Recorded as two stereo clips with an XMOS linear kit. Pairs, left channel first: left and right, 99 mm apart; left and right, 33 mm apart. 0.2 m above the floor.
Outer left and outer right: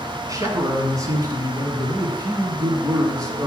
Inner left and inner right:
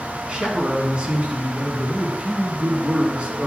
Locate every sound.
0.3 s a man speaking: 35° right (ahead or behind), 1.7 m